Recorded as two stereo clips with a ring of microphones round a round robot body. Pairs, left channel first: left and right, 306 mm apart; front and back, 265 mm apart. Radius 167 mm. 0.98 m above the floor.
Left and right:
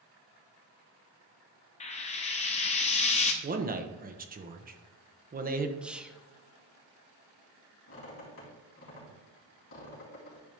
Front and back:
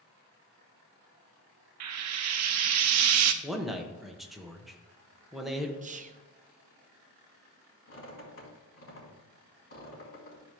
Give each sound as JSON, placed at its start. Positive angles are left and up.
{"t": 1.8, "sound": "frying", "azimuth_deg": 160, "distance_m": 0.6}
{"t": 3.4, "sound": "a man speaking", "azimuth_deg": -90, "distance_m": 0.9}
{"t": 5.8, "sound": "whispering", "azimuth_deg": -175, "distance_m": 0.8}
{"t": 7.9, "sound": "a squeak", "azimuth_deg": 40, "distance_m": 3.5}